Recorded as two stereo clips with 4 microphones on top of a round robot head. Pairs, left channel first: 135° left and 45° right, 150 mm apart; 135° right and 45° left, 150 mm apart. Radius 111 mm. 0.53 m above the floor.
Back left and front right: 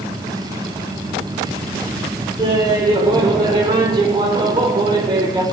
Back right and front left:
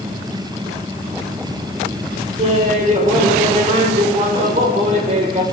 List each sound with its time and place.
2.4 s laughter: 10° left, 2.5 m